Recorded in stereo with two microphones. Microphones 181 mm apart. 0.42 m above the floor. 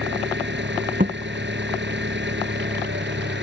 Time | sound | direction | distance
0.0 | an engine running | 80° right | ?
1.0 | a thud | 50° right (ahead or behind) | ?